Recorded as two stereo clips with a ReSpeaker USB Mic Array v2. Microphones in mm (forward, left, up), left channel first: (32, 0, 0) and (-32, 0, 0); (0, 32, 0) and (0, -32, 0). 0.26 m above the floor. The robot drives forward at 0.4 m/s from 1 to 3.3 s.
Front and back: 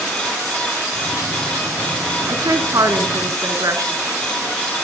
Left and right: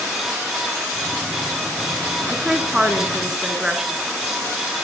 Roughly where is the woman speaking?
Behind.